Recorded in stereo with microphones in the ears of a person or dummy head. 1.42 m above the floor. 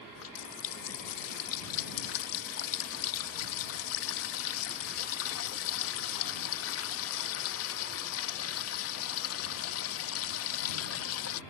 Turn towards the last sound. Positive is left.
turn(degrees=70)  # may be behind; listen again after turning